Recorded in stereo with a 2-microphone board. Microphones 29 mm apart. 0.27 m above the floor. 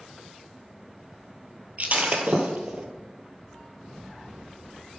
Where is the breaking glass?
50° right (ahead or behind), 1.0 m.